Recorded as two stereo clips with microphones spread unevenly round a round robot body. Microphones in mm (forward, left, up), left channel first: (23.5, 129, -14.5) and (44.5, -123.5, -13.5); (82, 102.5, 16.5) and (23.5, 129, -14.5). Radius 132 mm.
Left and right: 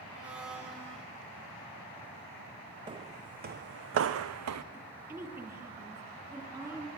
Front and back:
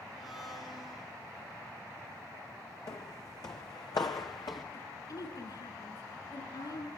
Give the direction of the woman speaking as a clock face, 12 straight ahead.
12 o'clock.